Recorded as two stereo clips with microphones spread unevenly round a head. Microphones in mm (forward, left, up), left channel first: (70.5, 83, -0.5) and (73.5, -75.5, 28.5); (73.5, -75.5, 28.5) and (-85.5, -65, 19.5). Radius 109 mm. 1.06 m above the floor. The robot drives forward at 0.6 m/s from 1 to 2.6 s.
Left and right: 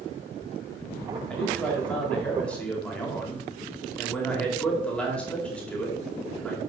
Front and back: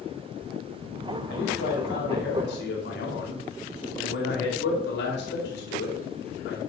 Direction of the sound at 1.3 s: 10° left.